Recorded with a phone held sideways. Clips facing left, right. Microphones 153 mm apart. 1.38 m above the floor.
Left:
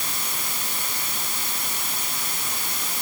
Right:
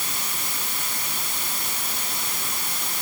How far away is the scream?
I don't hear a scream.